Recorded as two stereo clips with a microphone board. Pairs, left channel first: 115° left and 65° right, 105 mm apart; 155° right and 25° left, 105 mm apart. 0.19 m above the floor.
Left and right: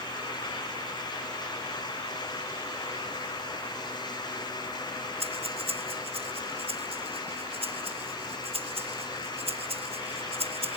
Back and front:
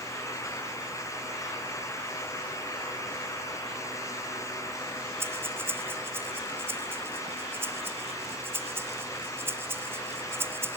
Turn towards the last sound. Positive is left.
turn(degrees=-45)